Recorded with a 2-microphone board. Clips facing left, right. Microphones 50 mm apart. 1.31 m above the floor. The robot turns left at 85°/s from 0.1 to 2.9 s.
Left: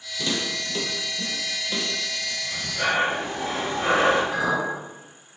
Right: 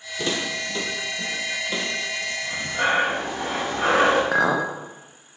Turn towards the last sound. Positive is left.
turn(degrees=-60)  # may be behind; listen again after turning